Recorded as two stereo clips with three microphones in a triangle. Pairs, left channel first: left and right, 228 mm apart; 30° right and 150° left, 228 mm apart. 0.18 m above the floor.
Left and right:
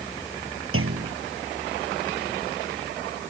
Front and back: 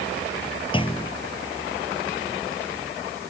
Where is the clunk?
95° right.